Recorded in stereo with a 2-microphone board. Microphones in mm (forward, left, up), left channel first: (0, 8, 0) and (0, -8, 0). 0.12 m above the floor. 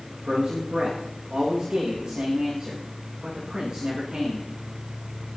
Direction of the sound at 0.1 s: 45° right (ahead or behind).